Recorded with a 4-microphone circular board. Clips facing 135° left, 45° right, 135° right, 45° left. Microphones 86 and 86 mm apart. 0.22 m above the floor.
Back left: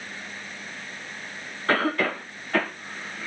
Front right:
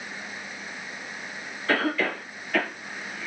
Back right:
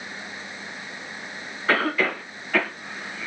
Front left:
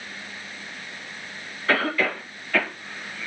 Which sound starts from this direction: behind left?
A cough, at 1.7 s.